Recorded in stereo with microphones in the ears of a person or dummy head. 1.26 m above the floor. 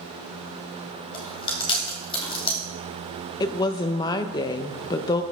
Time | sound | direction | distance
1.1 | chewing | 25° left (ahead or behind) | 2 m
3.4 | a woman speaking | 20° left (ahead or behind) | 0.5 m